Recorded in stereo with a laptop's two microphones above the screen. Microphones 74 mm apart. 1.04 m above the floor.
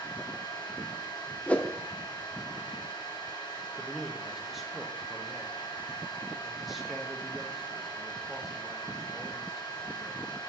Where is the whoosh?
20° left (ahead or behind), 0.5 m.